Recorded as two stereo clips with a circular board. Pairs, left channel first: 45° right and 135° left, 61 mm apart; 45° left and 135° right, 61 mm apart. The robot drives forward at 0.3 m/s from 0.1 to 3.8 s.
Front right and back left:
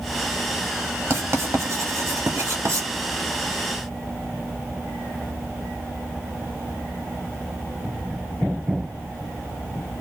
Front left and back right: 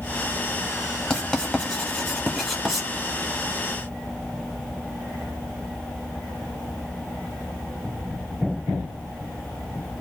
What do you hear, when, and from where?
1.1 s writing: 120° left, 1.3 m; by 2.9 s 140° left, 1.6 m